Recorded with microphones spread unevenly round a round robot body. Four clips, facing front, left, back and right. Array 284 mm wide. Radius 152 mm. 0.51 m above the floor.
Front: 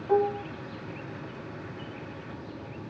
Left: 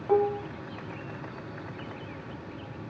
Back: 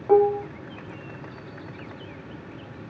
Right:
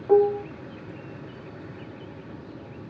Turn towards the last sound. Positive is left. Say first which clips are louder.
# right 6 dB, back 7 dB
turn(degrees=-160)